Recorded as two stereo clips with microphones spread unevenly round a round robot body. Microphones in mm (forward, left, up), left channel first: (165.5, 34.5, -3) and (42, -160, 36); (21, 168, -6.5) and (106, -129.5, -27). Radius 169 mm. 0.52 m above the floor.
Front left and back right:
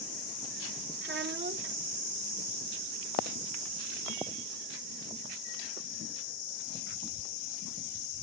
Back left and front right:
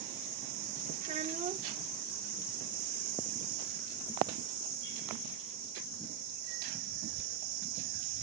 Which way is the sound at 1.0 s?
115° right.